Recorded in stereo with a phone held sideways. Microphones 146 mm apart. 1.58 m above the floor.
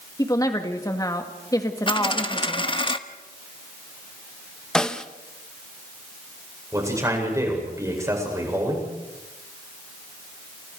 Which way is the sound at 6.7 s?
20° right (ahead or behind).